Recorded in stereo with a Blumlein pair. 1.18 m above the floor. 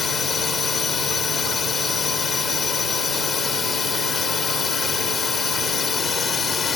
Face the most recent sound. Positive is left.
turn(degrees=20)